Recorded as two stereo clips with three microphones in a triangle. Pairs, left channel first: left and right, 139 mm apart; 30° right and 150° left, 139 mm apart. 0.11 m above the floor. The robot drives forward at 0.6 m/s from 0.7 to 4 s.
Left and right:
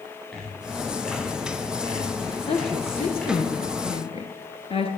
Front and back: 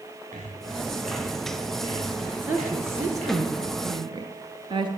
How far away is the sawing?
About 4.5 m.